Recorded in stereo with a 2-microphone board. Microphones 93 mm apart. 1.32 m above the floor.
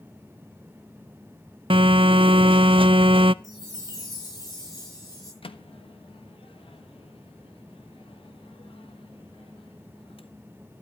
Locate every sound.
1.7 s a phone buzzing: 70° right (ahead or behind), 0.5 m
3.4 s a chime: 45° left (ahead or behind), 9 m
5.4 s a microwave: 80° left, 1.3 m